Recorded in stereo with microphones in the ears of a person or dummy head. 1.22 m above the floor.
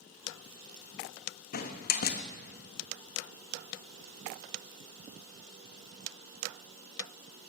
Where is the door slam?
50° left (ahead or behind), 1.4 m.